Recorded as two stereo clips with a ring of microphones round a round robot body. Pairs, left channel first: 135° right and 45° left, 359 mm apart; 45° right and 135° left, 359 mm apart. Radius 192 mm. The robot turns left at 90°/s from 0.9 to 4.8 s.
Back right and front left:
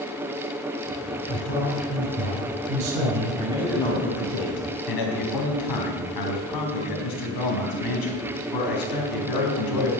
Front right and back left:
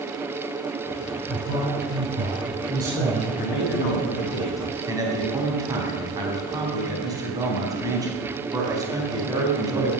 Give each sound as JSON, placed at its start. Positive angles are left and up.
{"t": 1.3, "sound": "a man speaking", "azimuth_deg": -170, "distance_m": 5.0}
{"t": 3.4, "sound": "a man speaking", "azimuth_deg": -15, "distance_m": 4.0}